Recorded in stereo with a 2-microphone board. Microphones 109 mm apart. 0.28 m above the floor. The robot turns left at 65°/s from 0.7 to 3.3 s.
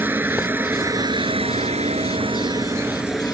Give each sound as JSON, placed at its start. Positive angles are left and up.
{"t": 0.0, "sound": "a helicopter", "azimuth_deg": -20}